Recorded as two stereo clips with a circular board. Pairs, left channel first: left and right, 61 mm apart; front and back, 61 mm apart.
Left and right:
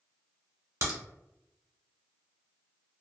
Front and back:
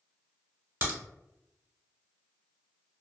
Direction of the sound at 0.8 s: 125° right.